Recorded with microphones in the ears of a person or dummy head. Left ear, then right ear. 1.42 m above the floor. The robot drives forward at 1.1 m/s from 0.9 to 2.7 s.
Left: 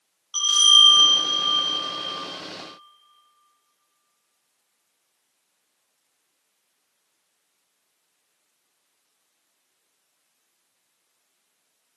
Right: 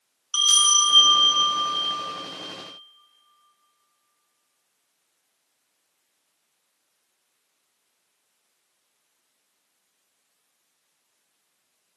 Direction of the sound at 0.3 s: 35° right (ahead or behind).